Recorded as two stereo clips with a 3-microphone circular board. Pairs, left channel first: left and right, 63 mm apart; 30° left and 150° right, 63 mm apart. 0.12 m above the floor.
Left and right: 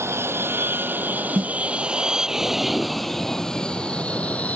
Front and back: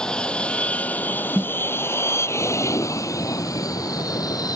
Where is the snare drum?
80° right.